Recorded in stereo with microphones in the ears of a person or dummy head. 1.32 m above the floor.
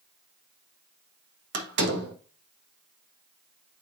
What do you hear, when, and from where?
1.5 s a door slam: 70° right (ahead or behind), 1.5 m